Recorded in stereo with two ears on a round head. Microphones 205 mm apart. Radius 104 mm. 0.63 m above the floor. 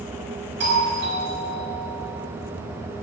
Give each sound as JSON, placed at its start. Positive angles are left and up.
{"t": 0.6, "sound": "a doorbell", "side_deg": -50, "distance_m": 5.0}